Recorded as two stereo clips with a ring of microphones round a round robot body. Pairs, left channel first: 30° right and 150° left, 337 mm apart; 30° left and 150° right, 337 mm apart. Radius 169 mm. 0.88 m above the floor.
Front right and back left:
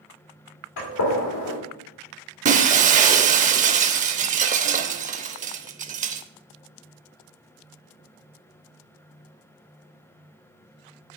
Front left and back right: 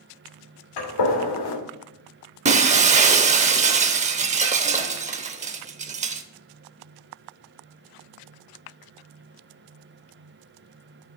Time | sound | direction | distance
0.8 | a gunshot | 10° left | 2.5 m
2.5 | breaking glass | 175° left | 0.6 m